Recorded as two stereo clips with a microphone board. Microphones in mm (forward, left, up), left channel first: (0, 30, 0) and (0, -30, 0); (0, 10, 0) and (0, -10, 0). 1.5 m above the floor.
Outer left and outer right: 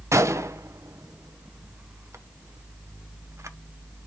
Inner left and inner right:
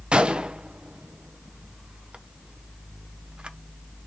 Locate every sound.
0.1 s a gunshot: 55° right (ahead or behind), 0.6 m